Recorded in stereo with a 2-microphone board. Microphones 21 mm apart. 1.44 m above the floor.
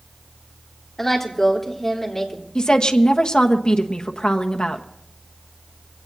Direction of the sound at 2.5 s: 50° left (ahead or behind).